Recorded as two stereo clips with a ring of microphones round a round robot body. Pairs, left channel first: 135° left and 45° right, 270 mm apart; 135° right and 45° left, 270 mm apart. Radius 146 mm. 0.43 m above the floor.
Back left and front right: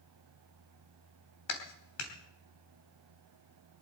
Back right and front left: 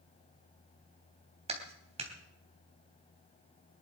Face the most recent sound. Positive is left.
turn(degrees=115)